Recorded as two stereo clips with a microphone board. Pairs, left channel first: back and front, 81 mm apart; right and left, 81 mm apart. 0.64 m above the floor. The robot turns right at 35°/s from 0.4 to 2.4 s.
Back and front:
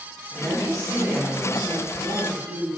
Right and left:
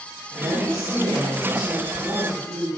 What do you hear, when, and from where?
0.3 s a woman speaking: 35° left, 1.3 m; by 2.7 s 105° left, 1.3 m